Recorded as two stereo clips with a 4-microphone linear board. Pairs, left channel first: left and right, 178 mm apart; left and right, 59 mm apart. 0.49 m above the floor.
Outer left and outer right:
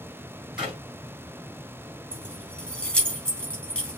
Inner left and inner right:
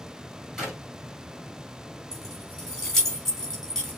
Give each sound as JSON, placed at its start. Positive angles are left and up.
{"t": 0.6, "sound": "a clap", "side_deg": -5, "distance_m": 3.5}
{"t": 2.1, "sound": "keys jangling", "side_deg": 5, "distance_m": 2.5}